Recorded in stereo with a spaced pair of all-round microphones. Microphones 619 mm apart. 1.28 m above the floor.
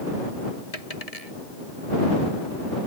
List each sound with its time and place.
0.7 s a dropped coin: 70° left (ahead or behind)